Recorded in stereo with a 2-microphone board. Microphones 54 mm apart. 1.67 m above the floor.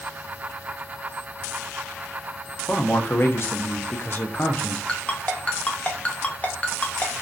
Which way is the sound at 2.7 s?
35° left (ahead or behind).